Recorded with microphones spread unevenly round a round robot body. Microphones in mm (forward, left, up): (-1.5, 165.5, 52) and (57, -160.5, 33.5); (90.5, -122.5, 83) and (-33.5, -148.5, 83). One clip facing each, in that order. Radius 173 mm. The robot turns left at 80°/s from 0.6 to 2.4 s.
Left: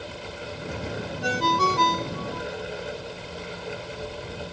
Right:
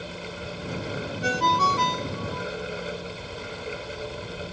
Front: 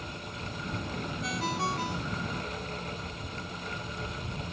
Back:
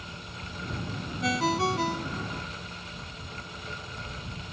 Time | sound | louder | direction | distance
1.2 | a ringtone | left 2 dB, back 7 dB | 165° right | ?